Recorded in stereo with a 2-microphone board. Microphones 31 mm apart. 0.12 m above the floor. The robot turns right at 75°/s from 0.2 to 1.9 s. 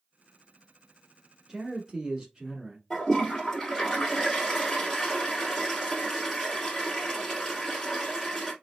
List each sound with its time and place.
1.5 s a man speaking: 15° right (ahead or behind), 1.2 m; by 2.8 s 20° right (ahead or behind), 1.2 m
2.9 s a toilet flushing: 10° left (ahead or behind), 1.8 m